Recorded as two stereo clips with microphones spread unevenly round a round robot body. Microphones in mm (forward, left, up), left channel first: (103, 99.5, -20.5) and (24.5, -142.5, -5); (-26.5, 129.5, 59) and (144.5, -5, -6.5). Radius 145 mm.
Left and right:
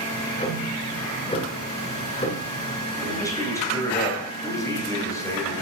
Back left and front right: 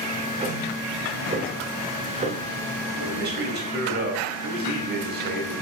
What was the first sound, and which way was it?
Ticking, 10° left.